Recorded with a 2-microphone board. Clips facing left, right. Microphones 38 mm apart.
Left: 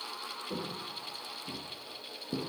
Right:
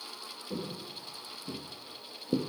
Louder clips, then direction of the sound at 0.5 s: Right 2 dB; 15° left (ahead or behind).